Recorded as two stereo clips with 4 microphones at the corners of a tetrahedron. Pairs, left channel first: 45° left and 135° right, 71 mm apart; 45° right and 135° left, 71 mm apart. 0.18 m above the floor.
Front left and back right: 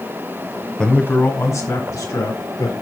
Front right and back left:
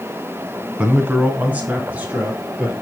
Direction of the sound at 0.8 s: 100° left.